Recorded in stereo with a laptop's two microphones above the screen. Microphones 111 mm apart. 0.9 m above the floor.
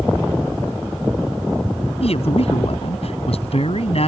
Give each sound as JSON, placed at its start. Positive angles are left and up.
{"t": 2.0, "sound": "a man speaking", "side_deg": 65}